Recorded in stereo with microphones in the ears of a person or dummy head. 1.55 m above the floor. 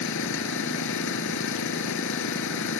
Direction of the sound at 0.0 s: 70° left (ahead or behind).